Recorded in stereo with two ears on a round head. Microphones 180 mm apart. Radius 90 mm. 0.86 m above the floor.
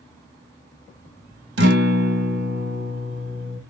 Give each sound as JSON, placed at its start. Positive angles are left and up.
{"t": 1.6, "sound": "a guitar", "side_deg": -55, "distance_m": 0.7}